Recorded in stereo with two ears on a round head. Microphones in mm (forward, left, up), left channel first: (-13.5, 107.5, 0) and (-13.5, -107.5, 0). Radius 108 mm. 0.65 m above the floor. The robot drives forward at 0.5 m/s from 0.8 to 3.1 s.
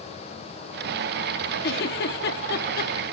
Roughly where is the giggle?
Left.